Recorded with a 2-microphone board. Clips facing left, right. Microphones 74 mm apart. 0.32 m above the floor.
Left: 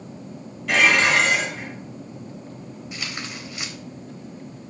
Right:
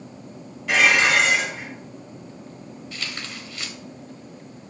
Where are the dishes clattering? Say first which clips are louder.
Even; 10° right (ahead or behind), 3.5 m.